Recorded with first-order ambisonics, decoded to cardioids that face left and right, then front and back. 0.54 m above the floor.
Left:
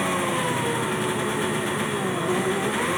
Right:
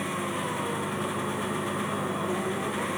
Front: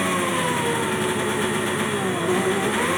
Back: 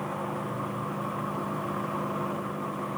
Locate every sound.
0.0 s an engine running: 25° left